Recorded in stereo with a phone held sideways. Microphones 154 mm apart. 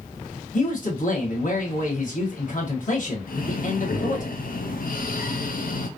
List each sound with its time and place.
0.5 s a man speaking: 60° left (ahead or behind), 1.6 m
3.3 s breathing: 65° left (ahead or behind), 0.6 m